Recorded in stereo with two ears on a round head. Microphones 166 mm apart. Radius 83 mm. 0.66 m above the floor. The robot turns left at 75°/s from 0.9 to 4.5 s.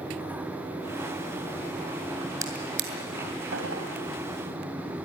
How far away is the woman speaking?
No woman speaking in this recording.